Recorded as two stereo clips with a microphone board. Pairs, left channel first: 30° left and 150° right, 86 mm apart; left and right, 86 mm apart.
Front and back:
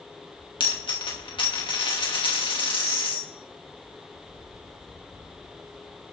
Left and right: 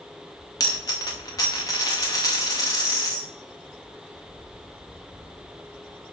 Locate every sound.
0.6 s a dropped coin: 40° left, 2.5 m